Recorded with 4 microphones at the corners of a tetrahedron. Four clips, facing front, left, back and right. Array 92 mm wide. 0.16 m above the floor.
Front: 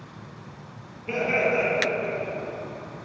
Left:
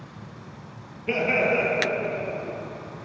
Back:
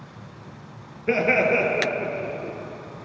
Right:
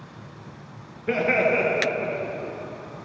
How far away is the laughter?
About 2.5 m.